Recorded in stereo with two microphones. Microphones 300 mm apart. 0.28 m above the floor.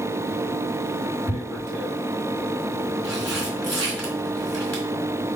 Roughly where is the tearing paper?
Left.